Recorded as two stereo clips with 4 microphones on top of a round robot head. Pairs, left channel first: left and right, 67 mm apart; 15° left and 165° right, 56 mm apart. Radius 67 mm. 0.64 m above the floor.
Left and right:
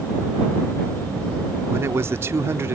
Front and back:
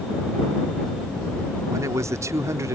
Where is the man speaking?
140° right.